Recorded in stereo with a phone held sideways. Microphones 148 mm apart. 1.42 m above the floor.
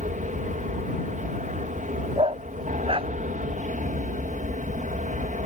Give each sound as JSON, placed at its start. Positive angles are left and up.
{"t": 0.0, "sound": "an aircraft", "side_deg": -60}
{"t": 2.2, "sound": "a dog barking", "side_deg": -40}